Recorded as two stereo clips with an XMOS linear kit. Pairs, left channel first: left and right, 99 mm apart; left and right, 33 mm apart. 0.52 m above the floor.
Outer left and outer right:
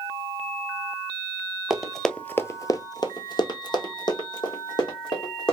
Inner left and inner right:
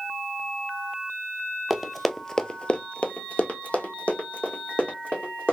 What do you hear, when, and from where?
1.7 s running footsteps: 5° right (ahead or behind), 0.7 m; by 5.5 s 45° left (ahead or behind), 2 m